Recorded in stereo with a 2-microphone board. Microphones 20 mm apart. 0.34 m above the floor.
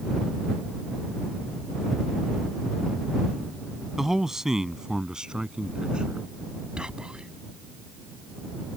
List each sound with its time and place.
4.0 s a man speaking: 15° right (ahead or behind); by 6.3 s 50° right (ahead or behind)
6.8 s whispering: 45° right (ahead or behind)